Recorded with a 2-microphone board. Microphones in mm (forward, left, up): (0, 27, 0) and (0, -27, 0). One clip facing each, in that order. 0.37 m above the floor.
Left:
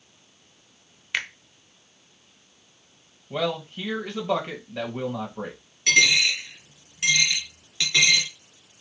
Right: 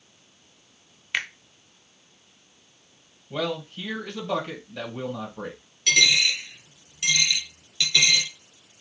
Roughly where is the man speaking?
Left.